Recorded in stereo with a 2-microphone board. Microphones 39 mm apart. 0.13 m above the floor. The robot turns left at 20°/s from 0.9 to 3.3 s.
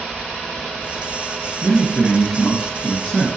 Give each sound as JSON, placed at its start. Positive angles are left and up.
{"t": 1.6, "sound": "a man speaking", "azimuth_deg": 155, "distance_m": 1.6}